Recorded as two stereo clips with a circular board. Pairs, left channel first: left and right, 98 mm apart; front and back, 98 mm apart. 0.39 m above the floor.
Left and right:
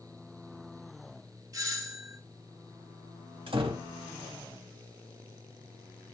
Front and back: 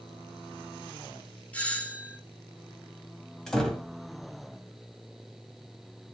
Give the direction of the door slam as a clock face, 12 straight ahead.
3 o'clock.